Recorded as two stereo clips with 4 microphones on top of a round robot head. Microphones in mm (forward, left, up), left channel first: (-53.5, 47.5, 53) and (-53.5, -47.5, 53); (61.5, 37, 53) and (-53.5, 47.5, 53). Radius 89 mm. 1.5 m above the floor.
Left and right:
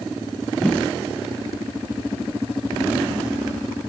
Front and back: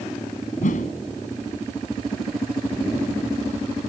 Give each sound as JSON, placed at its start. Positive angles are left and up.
{"t": 0.6, "sound": "a whoosh", "azimuth_deg": 5}